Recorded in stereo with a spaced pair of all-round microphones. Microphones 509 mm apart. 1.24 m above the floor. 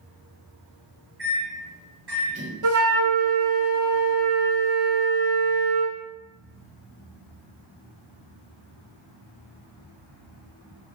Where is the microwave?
50° right (ahead or behind), 1.0 m.